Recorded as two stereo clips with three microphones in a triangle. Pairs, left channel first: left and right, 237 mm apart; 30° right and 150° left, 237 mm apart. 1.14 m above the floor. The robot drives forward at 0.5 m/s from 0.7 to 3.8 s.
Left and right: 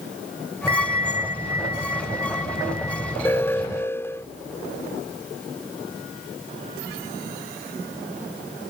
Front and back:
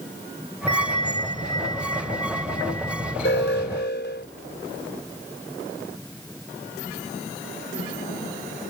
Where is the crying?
I don't hear crying.